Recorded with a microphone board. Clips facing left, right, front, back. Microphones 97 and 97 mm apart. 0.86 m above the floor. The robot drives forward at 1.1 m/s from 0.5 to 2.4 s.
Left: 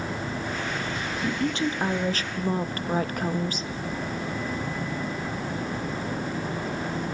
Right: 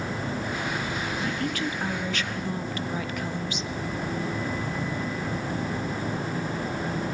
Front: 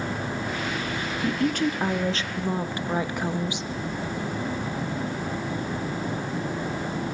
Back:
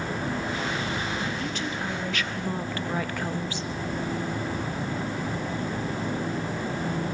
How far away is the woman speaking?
About 1.9 m.